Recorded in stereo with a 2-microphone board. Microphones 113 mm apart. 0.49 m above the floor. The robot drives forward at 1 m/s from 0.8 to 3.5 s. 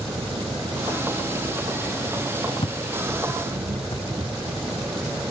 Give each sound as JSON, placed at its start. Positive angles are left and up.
{"t": 0.0, "sound": "an engine running", "side_deg": -70}
{"t": 2.6, "sound": "footsteps", "side_deg": 50}